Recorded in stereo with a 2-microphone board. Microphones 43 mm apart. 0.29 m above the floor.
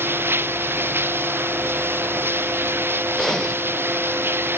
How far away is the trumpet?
No trumpet in this recording.